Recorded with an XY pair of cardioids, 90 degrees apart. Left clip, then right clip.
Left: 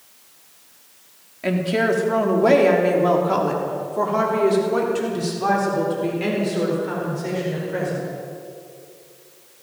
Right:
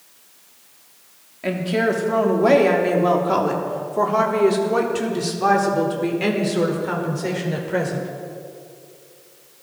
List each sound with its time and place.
1.4 s a woman speaking: 10° left, 3 m; by 8.1 s 45° right, 5 m